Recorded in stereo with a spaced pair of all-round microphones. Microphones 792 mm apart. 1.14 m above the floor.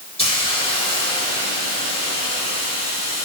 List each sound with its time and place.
0.2 s a hiss: 5° left (ahead or behind), 4 m